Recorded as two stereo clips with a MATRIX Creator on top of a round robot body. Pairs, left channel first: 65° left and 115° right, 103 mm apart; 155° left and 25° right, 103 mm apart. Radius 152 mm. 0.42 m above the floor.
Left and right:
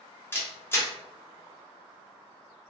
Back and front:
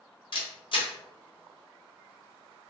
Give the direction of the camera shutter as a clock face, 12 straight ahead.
8 o'clock.